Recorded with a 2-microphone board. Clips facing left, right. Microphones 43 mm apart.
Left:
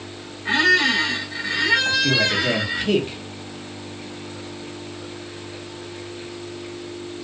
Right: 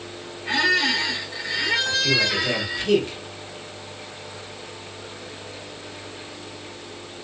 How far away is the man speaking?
About 1.1 m.